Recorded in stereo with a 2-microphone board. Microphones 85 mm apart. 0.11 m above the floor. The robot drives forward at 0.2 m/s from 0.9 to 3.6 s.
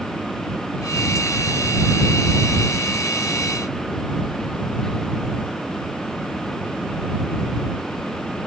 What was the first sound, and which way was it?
Only background noise.